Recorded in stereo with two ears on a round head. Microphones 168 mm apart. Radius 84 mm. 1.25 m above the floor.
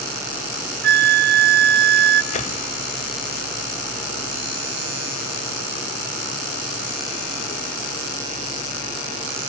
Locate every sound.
0.8 s a flute: 55° right (ahead or behind), 0.7 m
2.3 s a whoosh: 40° left (ahead or behind), 1.4 m